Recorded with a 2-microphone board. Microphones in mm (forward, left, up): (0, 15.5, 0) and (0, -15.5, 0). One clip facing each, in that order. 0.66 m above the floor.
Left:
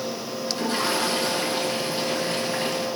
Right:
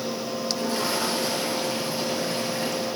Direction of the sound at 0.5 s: 60° left (ahead or behind).